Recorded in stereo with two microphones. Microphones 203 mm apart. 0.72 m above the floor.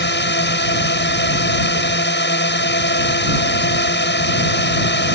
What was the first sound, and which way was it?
A drone, 60° left (ahead or behind).